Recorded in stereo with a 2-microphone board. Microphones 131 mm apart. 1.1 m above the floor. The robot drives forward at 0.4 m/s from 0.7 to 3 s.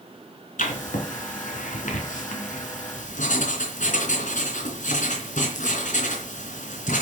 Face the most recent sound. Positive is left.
turn(degrees=70)  # may be behind; listen again after turning